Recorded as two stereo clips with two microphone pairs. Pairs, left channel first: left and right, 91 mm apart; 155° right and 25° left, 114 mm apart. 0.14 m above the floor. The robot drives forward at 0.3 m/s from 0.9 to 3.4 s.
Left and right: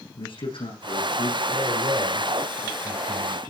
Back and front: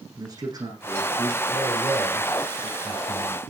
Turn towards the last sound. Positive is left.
turn(degrees=-105)